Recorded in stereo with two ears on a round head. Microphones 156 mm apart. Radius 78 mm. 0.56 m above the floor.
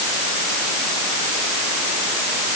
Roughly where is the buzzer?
I don't hear a buzzer.